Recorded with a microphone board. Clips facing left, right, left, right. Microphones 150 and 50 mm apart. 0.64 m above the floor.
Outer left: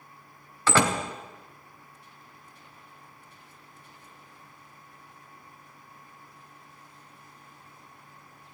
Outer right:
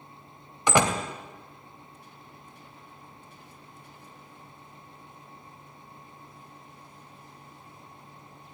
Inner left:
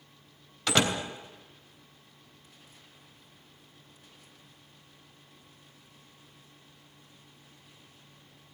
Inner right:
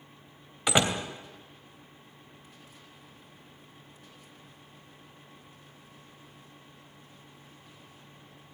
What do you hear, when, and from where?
0.7 s a door slam: 15° right (ahead or behind), 2.5 m